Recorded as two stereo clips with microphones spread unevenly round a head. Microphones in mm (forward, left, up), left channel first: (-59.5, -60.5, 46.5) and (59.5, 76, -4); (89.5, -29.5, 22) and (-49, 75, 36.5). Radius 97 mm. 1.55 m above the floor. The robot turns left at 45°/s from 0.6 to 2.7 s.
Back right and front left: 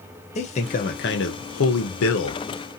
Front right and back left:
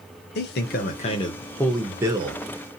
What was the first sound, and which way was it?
A man speaking, 75° right.